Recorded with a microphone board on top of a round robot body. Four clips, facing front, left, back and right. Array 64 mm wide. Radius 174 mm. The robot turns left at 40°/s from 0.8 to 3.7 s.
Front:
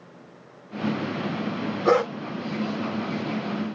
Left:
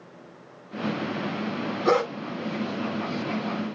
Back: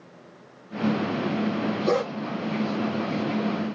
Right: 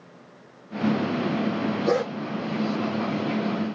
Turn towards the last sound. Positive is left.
turn(degrees=-45)